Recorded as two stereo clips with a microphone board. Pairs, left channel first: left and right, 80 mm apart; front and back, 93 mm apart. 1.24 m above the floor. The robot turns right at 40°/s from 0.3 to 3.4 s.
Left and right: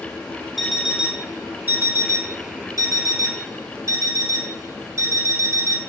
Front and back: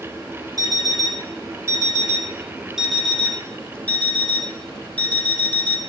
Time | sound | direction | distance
0.6 | an alarm clock | straight behind | 0.5 m